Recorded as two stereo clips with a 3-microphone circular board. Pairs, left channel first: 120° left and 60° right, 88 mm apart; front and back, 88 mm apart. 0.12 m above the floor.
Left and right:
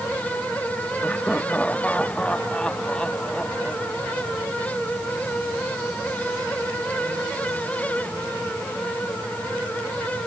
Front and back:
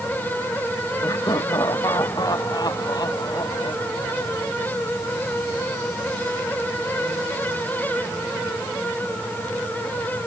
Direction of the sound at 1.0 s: 45° left.